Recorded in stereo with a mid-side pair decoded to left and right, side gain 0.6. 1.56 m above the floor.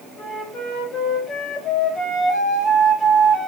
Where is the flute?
35° left, 5.5 m.